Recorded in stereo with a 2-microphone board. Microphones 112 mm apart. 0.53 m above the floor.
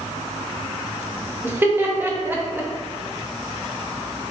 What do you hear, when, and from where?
1.4 s laughter: 20° right (ahead or behind), 0.8 m